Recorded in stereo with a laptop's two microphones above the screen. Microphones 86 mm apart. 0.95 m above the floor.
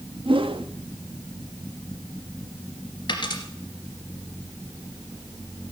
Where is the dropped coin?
55° left (ahead or behind), 2.5 m.